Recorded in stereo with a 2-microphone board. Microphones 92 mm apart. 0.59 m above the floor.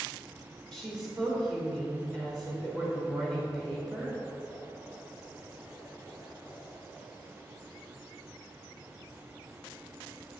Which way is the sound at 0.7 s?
5° left (ahead or behind).